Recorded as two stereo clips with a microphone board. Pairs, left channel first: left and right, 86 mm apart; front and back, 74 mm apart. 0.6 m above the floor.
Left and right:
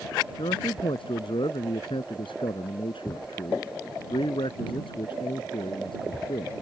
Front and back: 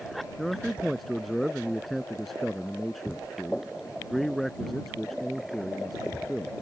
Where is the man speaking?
85° left.